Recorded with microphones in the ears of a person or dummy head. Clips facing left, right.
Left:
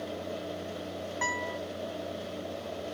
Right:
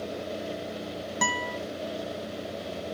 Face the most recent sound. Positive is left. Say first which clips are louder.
# right 5 dB
turn(degrees=-45)  # may be behind; listen again after turning